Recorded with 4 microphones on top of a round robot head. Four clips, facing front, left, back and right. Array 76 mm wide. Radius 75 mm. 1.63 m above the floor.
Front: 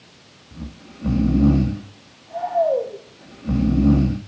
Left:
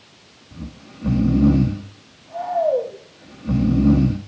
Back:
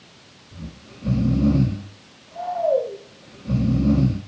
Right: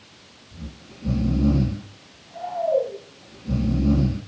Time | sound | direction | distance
0.5 | snoring | 45° left | 1.6 m